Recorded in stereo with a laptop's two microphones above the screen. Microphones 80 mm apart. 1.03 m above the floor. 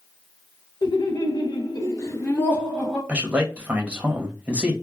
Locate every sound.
0.8 s laughter: 65° left (ahead or behind), 1.0 m; by 3.0 s 10° left (ahead or behind), 0.9 m
3.1 s a man speaking: 15° right (ahead or behind), 1.1 m